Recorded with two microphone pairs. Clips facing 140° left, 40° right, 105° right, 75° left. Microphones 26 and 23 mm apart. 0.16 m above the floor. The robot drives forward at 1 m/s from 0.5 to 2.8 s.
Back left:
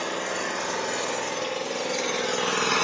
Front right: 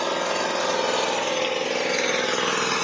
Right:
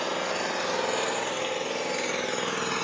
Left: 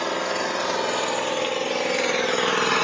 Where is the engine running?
10° left, 2.5 m; by 2.9 s 65° left, 0.6 m.